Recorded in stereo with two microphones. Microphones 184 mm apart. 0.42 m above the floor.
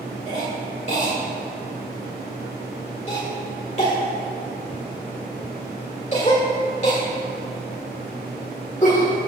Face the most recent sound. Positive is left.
turn(degrees=40)  # may be behind; listen again after turning